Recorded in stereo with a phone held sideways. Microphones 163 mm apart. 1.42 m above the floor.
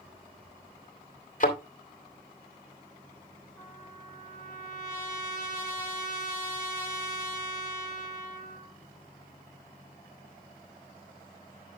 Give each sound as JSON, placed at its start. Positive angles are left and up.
{"t": 1.4, "sound": "a thud", "side_deg": 50, "distance_m": 2.5}
{"t": 3.6, "sound": "a trumpet", "side_deg": 15, "distance_m": 3.5}